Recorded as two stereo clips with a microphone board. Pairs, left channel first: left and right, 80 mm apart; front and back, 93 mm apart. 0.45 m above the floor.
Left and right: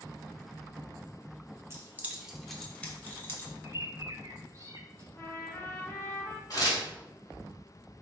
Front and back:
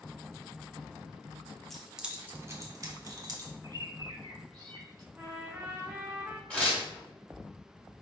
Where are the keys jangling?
85° right, 0.7 m; by 3.5 s 145° left, 1.2 m.